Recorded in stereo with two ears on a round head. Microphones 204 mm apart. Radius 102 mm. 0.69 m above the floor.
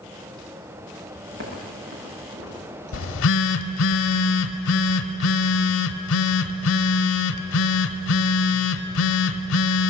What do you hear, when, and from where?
1.3 s footsteps: 50° right (ahead or behind), 8 m; by 3.9 s 60° right (ahead or behind), 9 m
2.9 s a phone buzzing: 65° left (ahead or behind), 1.0 m